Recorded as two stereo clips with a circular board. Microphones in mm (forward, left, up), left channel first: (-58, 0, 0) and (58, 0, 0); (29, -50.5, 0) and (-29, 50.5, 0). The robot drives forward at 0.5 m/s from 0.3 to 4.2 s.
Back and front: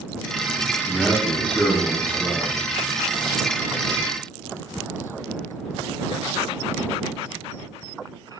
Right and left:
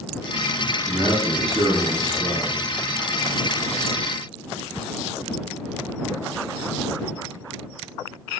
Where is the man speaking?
105° left, 1.8 m; by 2.6 s 135° left, 2 m.